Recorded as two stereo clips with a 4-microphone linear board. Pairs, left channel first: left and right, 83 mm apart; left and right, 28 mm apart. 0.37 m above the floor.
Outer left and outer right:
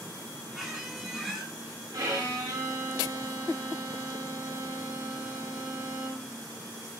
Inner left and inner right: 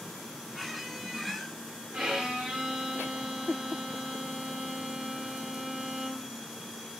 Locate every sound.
0.5 s a squeak: 5° right (ahead or behind), 0.6 m
1.9 s a violin: 50° right (ahead or behind), 1.2 m